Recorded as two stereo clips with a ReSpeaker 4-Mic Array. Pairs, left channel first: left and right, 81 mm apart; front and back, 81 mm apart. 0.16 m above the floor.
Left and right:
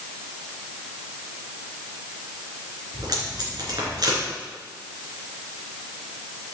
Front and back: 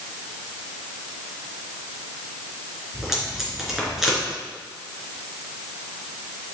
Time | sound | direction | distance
2.9 | tape being pulled | 95° right | 2.5 m